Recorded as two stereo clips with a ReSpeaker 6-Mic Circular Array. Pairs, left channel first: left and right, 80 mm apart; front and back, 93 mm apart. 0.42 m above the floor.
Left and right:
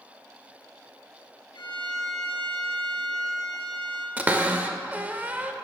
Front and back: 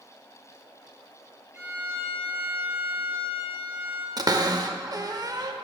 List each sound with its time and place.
1.5 s a violin: 110° left, 1.2 m
4.2 s a cupboard door: 155° right, 0.5 m